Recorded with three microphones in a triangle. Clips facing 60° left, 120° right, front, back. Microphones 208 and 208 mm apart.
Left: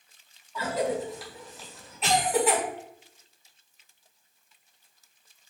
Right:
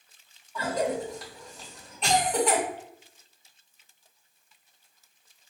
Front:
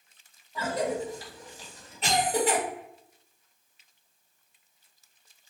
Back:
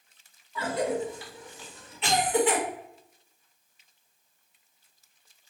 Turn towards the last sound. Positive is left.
turn(degrees=-25)